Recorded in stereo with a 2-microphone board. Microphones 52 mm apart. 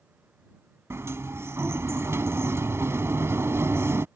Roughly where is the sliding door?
Right.